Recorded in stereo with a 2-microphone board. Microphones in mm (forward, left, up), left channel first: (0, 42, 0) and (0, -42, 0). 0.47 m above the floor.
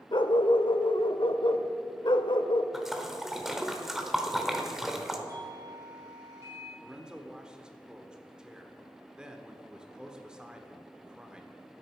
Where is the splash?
5° right (ahead or behind), 1.2 m.